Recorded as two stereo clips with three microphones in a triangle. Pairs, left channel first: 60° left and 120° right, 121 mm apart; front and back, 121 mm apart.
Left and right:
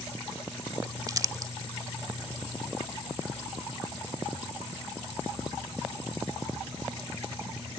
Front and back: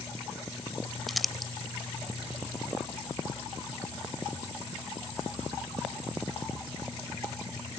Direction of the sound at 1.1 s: 90° right.